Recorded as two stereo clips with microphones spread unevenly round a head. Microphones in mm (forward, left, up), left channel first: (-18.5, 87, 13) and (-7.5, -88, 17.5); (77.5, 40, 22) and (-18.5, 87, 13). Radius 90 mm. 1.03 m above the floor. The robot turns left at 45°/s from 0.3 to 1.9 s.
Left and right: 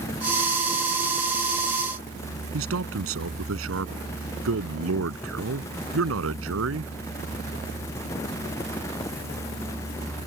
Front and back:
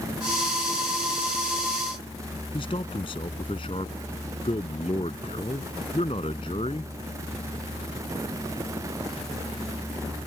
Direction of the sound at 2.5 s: 90° right.